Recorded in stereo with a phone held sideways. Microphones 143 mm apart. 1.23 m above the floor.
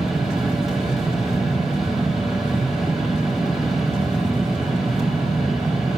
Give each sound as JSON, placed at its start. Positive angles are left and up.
{"t": 0.0, "sound": "a fan", "side_deg": 0, "distance_m": 2.0}